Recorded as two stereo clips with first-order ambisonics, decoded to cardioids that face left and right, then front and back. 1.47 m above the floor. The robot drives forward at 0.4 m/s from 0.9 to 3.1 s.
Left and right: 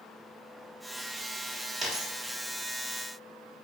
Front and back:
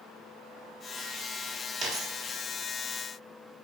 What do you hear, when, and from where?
1.8 s a dropped coin: 170° right, 1.3 m